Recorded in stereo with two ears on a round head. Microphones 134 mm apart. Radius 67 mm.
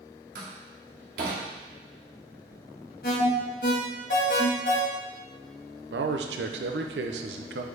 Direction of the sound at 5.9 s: 85° right.